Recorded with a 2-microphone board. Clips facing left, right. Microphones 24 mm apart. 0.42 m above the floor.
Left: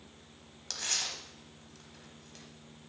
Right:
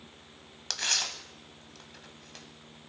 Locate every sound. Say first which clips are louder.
0.7 s tearing paper: right 5 dB; 35° right (ahead or behind), 1.1 m